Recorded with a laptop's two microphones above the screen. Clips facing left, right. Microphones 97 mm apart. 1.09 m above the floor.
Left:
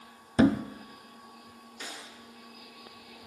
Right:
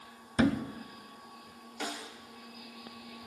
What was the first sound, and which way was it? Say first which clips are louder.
A thud: left 5 dB; 25° left (ahead or behind).